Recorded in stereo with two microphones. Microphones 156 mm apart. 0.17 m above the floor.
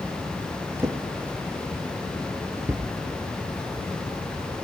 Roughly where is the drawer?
Centre.